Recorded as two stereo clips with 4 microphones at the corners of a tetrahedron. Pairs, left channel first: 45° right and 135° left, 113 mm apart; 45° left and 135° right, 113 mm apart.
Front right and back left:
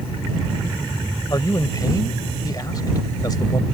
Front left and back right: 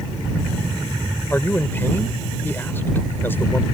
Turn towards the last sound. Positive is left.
turn(degrees=-15)